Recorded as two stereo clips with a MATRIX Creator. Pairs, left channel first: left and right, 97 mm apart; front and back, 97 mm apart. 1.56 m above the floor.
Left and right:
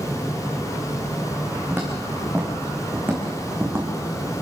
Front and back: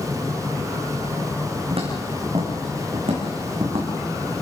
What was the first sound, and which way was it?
Footsteps, 165° right.